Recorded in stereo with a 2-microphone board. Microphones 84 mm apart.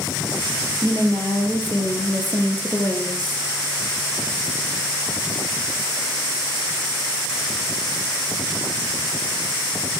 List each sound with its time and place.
0.8 s a woman speaking: 25° left (ahead or behind), 4 m; by 3.5 s 20° left (ahead or behind), 2.5 m